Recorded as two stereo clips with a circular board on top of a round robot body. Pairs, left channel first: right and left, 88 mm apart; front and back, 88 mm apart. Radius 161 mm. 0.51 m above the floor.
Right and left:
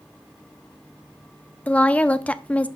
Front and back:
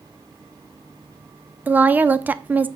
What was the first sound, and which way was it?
A woman speaking, 140° right.